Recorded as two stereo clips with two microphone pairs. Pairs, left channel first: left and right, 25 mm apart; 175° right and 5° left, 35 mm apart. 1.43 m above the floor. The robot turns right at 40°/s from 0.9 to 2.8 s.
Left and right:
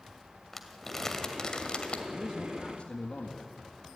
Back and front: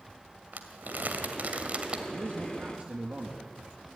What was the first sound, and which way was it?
Crumpling, 15° left.